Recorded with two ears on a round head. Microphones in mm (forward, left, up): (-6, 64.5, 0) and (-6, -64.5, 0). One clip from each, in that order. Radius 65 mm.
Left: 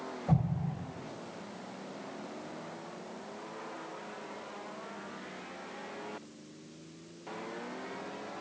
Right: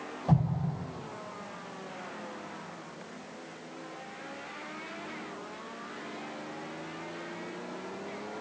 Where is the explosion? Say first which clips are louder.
Right 4 dB; 40° right (ahead or behind), 3 m.